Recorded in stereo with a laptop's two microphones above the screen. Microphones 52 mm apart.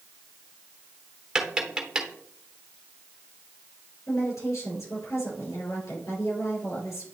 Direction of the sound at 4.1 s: 75° left (ahead or behind).